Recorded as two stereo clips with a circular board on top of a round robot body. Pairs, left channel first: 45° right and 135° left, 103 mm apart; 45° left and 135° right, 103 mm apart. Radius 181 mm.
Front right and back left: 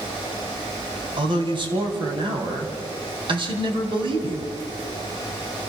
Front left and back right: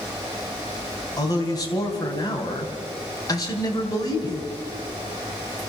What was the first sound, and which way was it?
A man speaking, 100° left.